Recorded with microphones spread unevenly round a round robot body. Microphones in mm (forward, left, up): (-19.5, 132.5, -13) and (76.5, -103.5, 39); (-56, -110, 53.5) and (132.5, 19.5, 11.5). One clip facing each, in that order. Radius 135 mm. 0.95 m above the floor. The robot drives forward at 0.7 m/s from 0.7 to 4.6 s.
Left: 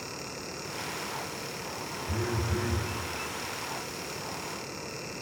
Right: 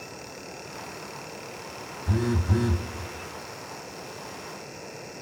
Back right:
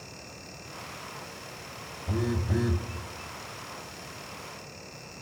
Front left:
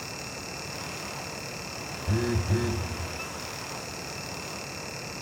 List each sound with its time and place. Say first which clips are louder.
2.1 s a phone buzzing: right 7 dB, front left 1 dB; 35° right, 1.2 m; by 2.9 s 65° right, 0.9 m